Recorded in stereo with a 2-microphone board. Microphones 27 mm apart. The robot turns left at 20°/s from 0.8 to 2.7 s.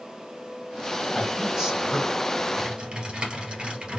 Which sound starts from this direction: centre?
A man speaking, at 1.1 s.